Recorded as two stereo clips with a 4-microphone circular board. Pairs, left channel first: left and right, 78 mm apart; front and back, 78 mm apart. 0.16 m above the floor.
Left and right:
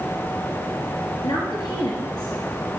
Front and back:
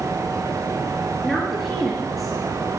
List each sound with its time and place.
1.2 s a woman speaking: 90° left, 3 m